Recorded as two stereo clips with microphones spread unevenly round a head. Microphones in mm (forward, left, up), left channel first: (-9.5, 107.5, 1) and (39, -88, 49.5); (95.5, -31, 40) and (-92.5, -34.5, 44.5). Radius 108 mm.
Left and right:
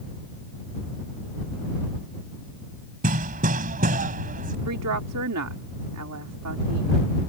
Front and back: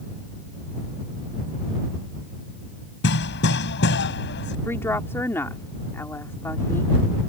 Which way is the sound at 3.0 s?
25° right.